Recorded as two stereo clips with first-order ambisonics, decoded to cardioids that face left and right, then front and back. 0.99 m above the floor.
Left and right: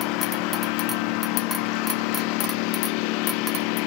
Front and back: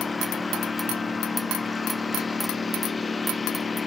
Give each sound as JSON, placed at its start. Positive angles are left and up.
{"t": 0.0, "sound": "a lawn mower", "azimuth_deg": 75}